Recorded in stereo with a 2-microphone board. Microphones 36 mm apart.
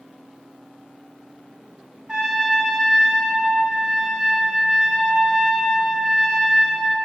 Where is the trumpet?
25° right (ahead or behind), 1.0 m.